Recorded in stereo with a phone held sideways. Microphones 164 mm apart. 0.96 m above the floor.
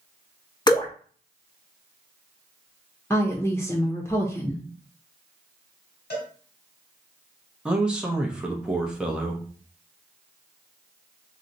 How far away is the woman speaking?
About 0.5 m.